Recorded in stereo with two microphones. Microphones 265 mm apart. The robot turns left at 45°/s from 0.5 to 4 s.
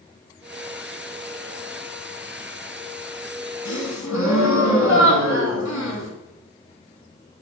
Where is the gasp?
85° left, 0.9 m; by 6.1 s 80° left, 0.9 m.